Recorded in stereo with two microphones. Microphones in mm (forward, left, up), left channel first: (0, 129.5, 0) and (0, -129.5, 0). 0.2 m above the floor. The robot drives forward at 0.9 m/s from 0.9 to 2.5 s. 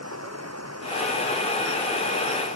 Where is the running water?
75° right (ahead or behind); by 2.6 s 85° right.